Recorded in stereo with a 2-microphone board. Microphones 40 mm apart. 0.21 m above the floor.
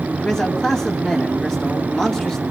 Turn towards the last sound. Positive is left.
turn(degrees=20)  # may be behind; listen again after turning